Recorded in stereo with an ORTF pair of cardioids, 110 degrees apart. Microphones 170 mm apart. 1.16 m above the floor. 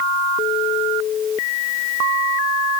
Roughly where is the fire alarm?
No fire alarm in this recording.